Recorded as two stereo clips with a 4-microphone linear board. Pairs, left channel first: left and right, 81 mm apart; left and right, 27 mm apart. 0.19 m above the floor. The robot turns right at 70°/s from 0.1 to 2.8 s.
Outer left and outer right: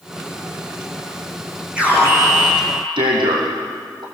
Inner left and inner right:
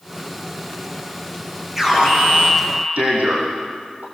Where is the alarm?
170° right, 7 m; by 4.0 s 95° right, 7 m.